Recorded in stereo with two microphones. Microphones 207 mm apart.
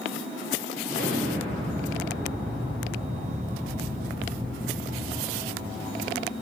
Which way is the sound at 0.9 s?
45° right (ahead or behind).